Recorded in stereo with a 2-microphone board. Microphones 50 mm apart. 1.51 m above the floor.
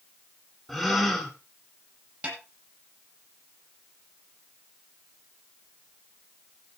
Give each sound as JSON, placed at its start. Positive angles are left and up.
{"t": 0.7, "sound": "a gasp", "side_deg": 5, "distance_m": 4.5}
{"t": 2.2, "sound": "a snare drum", "side_deg": -20, "distance_m": 9.5}